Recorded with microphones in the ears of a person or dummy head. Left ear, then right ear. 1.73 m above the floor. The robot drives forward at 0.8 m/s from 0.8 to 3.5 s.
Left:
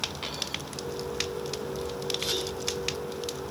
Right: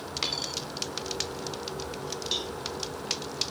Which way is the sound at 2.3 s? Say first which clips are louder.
Even; 55° right (ahead or behind).